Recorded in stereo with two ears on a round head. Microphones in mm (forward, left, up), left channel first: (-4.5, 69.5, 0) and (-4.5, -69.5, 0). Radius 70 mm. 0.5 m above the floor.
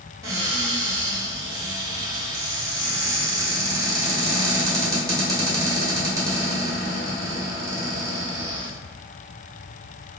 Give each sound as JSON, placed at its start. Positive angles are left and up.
{"t": 0.2, "sound": "a cupboard door", "side_deg": -25, "distance_m": 1.6}